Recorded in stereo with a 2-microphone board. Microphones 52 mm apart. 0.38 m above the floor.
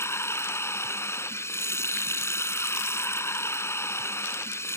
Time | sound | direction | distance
0.0 | running water | 60° left (ahead or behind) | ?